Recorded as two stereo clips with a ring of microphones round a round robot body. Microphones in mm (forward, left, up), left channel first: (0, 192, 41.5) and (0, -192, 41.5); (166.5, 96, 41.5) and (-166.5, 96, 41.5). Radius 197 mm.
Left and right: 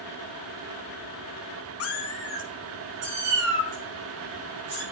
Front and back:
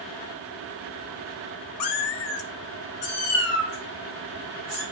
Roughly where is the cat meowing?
Ahead left.